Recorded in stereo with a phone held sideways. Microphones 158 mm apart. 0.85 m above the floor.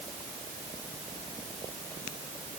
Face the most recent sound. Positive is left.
No sound to turn to.